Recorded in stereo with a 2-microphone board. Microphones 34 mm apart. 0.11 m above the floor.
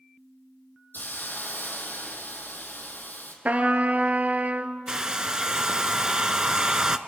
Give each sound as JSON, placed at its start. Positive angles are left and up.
{"t": 0.9, "sound": "a hiss", "side_deg": 65, "distance_m": 2.5}
{"t": 3.5, "sound": "a trumpet", "side_deg": -45, "distance_m": 1.0}
{"t": 4.9, "sound": "a hair dryer", "side_deg": -20, "distance_m": 0.7}